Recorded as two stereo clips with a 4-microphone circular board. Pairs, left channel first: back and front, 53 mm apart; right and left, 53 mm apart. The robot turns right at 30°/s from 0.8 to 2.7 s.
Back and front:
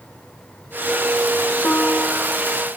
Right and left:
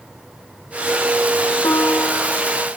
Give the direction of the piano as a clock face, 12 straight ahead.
4 o'clock.